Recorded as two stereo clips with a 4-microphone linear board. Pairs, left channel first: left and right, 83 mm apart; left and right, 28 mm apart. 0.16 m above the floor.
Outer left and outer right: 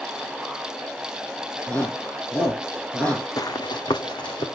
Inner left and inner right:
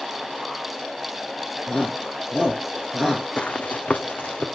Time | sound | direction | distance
1.7 | a shout | 20° left (ahead or behind) | 6 m
3.4 | running footsteps | 50° left (ahead or behind) | 0.6 m